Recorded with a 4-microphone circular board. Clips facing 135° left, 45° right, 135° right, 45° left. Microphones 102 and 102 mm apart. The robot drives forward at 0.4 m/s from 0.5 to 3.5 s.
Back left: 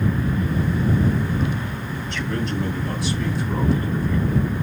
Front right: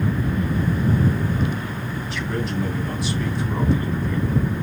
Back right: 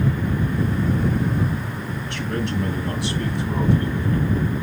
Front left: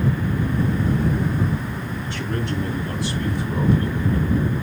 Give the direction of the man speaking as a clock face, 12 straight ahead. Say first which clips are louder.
Back left 1 dB, back right 1 dB; 4 o'clock.